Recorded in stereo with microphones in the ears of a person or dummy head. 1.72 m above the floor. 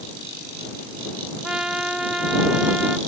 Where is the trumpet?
Centre (ahead or behind).